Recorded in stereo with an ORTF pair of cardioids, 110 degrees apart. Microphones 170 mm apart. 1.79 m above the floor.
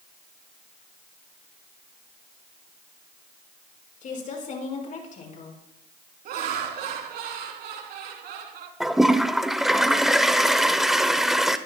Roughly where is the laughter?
Right.